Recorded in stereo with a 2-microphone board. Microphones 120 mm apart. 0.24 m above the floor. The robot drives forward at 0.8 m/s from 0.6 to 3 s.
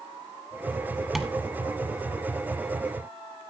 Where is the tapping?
5° right (ahead or behind), 1.3 m.